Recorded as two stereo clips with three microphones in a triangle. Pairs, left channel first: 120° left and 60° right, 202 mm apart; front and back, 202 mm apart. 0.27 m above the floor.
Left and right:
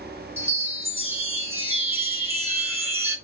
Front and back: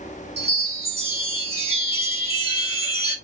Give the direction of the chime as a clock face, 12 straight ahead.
4 o'clock.